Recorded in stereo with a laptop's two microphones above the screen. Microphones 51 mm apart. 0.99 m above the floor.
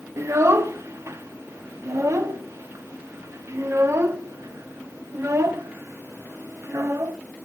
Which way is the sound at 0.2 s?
65° right (ahead or behind).